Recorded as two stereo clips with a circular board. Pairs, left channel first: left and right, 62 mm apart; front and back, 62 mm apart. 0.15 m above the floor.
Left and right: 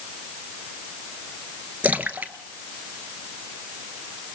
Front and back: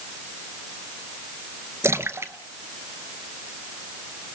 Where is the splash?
150° right, 1.1 m.